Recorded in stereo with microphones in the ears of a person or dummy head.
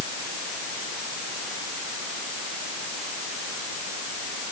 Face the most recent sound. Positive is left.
No sound to turn to.